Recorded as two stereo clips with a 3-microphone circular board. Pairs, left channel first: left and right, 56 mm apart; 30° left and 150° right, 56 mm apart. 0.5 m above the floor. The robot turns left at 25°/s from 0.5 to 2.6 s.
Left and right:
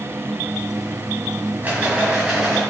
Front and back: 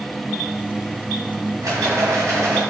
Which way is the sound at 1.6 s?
145° right.